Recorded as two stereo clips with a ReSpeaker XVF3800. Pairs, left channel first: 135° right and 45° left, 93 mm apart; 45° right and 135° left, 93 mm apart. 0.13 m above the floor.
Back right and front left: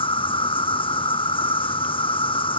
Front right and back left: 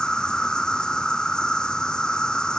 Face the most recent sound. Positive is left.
turn(degrees=-125)